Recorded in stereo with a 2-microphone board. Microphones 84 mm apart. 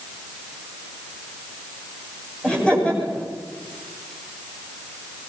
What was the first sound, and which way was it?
Laughter, 15° left (ahead or behind).